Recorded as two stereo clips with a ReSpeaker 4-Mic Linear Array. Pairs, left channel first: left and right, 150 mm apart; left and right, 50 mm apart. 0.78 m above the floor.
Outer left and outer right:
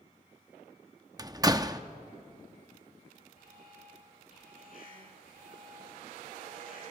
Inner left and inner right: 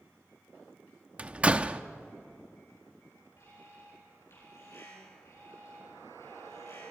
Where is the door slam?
25° right (ahead or behind), 0.8 m.